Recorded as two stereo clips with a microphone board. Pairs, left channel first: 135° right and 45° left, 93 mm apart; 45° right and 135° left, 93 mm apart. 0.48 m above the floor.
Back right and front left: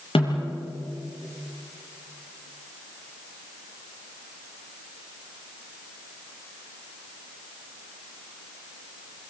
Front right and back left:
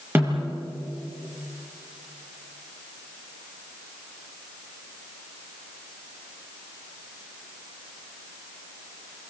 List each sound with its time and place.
0.1 s a snare drum: 160° right, 8 m